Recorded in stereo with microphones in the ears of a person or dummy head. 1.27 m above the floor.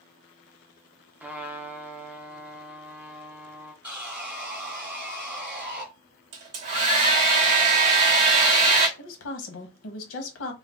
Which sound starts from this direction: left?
A woman speaking, at 9.0 s.